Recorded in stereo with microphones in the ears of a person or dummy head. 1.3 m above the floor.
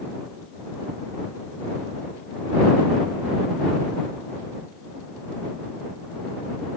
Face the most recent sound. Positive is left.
No sound to turn to.